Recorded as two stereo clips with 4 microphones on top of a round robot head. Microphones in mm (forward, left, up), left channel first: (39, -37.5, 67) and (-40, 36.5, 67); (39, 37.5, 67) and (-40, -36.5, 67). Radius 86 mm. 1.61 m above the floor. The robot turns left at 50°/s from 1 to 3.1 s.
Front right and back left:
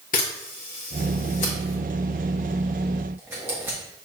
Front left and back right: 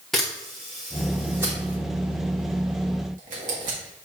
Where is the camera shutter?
45° right, 1.0 m; by 3.8 s 150° right, 1.0 m.